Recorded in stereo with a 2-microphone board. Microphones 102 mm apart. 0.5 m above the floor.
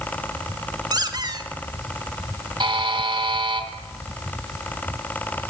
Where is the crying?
No crying in this recording.